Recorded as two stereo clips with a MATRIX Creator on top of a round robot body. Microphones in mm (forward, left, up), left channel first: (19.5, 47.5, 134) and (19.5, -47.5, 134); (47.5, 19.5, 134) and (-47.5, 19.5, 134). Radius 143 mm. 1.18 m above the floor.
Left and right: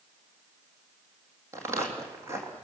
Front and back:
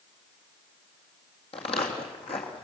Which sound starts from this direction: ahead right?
Footsteps, at 1.5 s.